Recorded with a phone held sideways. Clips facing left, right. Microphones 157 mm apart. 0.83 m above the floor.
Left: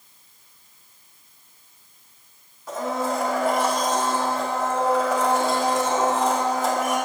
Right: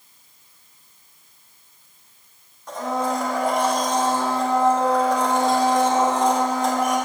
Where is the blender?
5° left (ahead or behind), 1.4 m.